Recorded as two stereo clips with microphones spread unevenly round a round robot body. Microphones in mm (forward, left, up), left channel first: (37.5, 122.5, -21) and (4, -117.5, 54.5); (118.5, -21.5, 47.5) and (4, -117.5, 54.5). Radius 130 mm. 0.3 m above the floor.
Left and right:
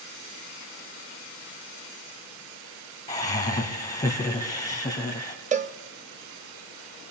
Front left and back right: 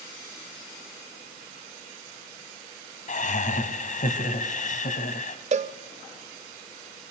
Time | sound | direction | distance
3.1 | laughter | 15° left | 2.5 m
5.5 | a cowbell | 170° right | 0.7 m